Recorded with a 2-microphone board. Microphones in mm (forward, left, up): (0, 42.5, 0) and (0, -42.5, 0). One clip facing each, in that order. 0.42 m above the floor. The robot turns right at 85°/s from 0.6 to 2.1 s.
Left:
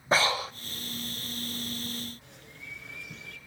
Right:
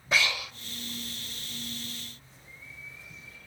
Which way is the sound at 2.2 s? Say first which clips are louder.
Left 3 dB; 70° left (ahead or behind).